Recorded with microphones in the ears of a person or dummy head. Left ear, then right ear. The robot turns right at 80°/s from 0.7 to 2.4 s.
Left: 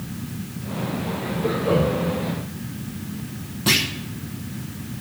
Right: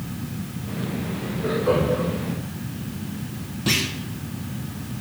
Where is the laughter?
10° right (ahead or behind), 5 m; by 2.1 s 65° right (ahead or behind), 5 m.